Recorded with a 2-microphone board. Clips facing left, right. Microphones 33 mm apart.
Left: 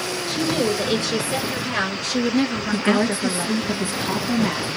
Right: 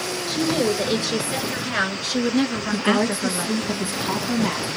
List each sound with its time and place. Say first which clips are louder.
0.3 s a woman speaking: even; 10° right (ahead or behind), 4 m; by 3.7 s 30° right (ahead or behind), 2.5 m
2.7 s a woman speaking: left 1 dB; 10° right (ahead or behind), 1.5 m